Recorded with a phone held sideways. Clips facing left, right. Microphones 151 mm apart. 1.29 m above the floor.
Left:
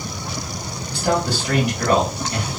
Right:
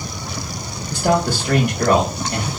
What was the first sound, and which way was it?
A man speaking, 50° right (ahead or behind).